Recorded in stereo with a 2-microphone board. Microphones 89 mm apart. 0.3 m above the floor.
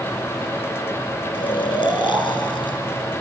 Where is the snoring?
75° left (ahead or behind), 2 m.